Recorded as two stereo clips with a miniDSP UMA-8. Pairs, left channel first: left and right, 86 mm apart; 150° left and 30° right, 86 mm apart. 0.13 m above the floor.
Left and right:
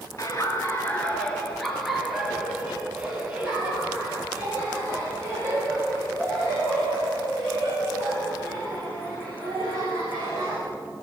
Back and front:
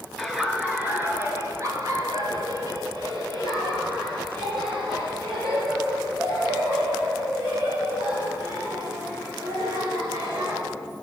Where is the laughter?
55° left, 2.5 m; by 10.6 s 40° right, 12 m.